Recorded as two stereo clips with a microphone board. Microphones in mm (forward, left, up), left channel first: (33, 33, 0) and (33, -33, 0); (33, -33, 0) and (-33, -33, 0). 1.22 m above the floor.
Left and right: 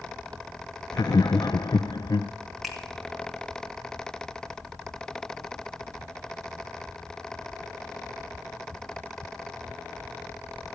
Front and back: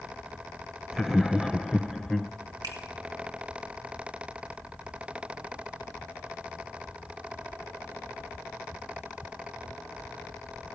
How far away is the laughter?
About 0.5 m.